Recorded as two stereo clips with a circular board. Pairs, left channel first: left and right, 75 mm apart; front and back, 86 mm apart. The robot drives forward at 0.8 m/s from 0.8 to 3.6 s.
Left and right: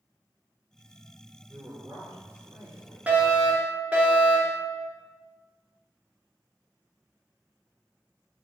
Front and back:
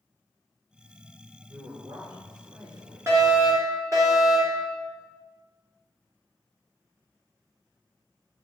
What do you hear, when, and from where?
1.5 s a man speaking: 135° right, 4 m; by 3.1 s 145° right, 5 m
3.1 s a fire alarm: 150° right, 2.5 m; by 4.6 s 155° right, 3 m